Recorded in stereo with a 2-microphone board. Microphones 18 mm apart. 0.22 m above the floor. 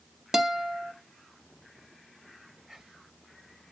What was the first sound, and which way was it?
A guitar, 25° right (ahead or behind).